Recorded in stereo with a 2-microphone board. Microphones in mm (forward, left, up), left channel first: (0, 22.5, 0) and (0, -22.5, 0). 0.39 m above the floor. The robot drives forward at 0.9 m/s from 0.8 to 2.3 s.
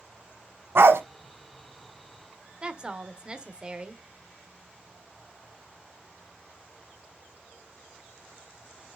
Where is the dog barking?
65° right (ahead or behind), 1.2 m; by 1.0 s 70° right (ahead or behind), 1.2 m.